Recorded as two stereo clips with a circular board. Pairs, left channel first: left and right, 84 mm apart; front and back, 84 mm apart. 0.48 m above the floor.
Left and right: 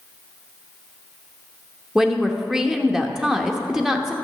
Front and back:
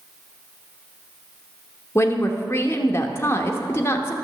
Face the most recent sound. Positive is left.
turn(degrees=-5)